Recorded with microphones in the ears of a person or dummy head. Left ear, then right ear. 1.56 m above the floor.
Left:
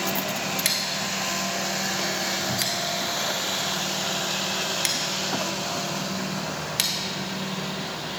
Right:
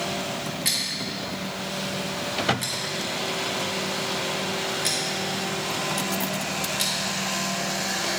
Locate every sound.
0.7 s scissors: 40° left (ahead or behind), 1.2 m